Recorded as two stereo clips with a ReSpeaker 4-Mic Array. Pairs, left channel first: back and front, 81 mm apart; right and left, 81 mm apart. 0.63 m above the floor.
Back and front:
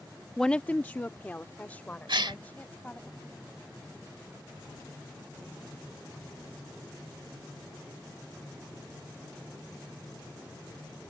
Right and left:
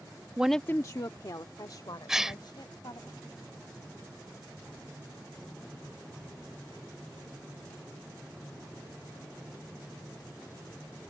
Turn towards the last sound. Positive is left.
turn(degrees=5)